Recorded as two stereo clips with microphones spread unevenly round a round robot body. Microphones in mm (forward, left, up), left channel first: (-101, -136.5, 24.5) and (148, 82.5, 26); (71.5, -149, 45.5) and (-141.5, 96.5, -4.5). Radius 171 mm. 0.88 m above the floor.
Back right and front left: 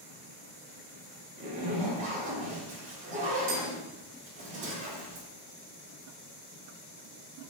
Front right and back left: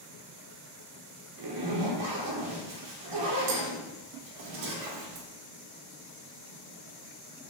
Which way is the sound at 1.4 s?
110° left.